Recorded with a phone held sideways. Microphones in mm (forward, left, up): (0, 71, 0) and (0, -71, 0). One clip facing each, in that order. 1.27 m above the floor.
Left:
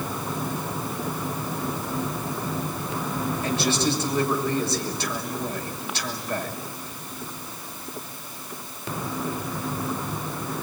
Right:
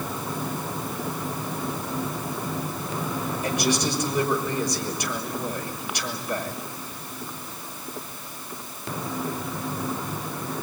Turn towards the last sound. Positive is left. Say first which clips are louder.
# even
turn(degrees=-15)  # may be behind; listen again after turning